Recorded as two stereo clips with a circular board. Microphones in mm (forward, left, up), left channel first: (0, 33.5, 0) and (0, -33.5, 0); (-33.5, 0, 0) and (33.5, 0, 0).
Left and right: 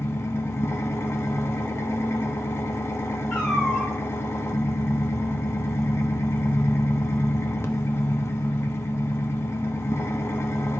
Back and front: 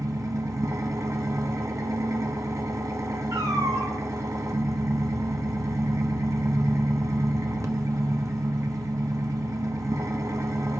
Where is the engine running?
40° left, 1.2 m.